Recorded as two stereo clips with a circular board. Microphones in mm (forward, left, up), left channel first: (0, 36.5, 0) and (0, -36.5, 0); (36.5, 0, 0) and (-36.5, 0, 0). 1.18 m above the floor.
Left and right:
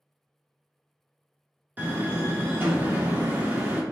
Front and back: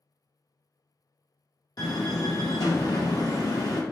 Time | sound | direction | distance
1.8 | a door slam | 25° right | 1.1 m